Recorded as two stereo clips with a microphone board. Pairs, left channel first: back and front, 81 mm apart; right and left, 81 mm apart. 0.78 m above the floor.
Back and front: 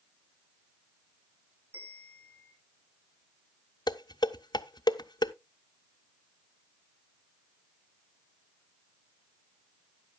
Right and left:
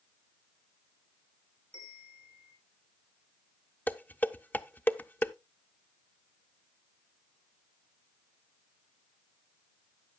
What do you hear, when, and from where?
1.7 s a bell: 50° right, 3 m
3.9 s dishes clattering: 155° right, 0.5 m